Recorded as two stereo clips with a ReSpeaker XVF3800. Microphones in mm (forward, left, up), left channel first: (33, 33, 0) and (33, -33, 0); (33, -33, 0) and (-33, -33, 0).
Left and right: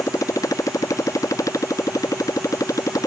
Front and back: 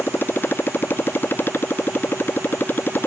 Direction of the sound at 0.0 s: 60° left.